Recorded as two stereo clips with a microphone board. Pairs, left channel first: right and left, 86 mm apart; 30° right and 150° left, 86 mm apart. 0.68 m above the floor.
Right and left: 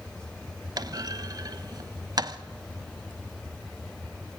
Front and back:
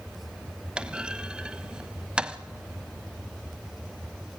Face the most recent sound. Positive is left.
turn(degrees=75)